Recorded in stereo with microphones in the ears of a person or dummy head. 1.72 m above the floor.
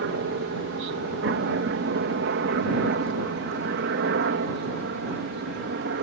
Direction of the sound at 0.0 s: 65° right (ahead or behind).